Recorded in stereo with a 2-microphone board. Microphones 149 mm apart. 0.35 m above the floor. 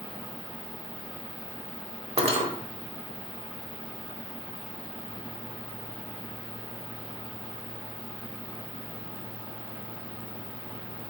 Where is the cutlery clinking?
40° right (ahead or behind), 0.5 m.